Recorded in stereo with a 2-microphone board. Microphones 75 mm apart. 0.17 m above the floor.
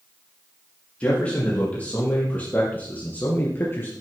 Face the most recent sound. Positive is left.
turn(degrees=35)  # may be behind; listen again after turning